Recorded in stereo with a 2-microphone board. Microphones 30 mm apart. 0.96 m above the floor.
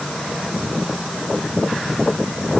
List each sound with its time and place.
Only background noise.